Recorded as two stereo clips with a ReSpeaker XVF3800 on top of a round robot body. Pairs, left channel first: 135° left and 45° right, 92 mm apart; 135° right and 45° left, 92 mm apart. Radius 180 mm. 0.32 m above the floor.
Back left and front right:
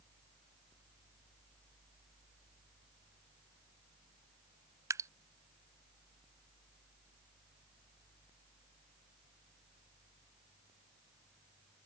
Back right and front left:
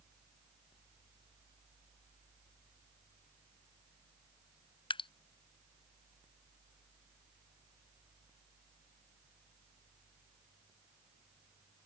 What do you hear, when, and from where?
4.9 s dripping: 105° right